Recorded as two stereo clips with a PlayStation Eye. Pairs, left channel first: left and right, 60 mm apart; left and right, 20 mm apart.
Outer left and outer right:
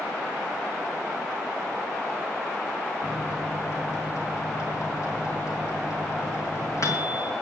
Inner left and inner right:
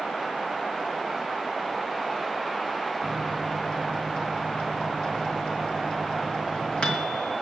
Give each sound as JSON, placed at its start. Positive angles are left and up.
{"t": 3.0, "sound": "a microwave", "side_deg": 60, "distance_m": 3.0}